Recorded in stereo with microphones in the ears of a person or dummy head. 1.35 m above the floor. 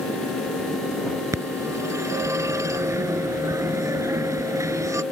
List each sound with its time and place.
1.3 s a phone ringing: 10° right (ahead or behind)